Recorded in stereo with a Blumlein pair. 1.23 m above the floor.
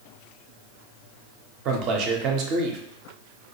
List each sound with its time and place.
1.6 s a man speaking: 35° right, 0.6 m